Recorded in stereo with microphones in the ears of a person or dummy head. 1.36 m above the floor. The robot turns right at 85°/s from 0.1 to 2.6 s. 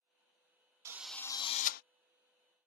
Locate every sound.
0.8 s a drill: 20° right; by 1.8 s 60° left